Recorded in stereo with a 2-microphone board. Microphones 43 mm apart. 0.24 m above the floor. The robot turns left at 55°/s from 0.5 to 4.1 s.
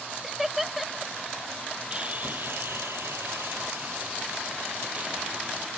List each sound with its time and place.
0.2 s laughter: 5° right (ahead or behind); by 1.1 s 5° left (ahead or behind)
1.9 s sawing: 25° right; by 5.7 s 145° right